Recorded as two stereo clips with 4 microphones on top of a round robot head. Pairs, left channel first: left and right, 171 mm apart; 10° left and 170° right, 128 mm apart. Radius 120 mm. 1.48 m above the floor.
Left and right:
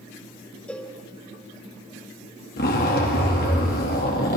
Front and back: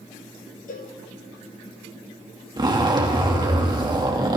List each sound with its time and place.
0.7 s a cowbell: 5° left, 1.5 m
2.6 s a zipper: 130° left, 2.5 m